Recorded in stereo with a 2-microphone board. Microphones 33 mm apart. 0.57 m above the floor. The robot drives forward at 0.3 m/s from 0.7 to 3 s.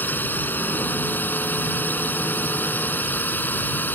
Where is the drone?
70° left (ahead or behind).